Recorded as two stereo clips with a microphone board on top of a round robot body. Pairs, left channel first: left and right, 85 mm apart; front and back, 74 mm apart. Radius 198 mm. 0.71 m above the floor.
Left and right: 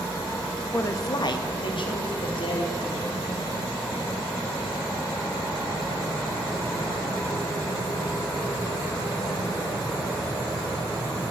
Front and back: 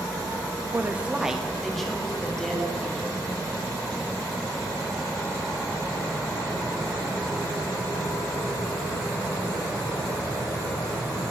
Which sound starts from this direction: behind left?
A woman speaking, at 0.7 s.